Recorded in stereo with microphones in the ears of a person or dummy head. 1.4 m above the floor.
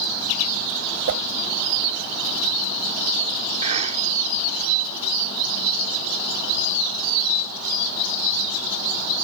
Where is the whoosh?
60° right (ahead or behind).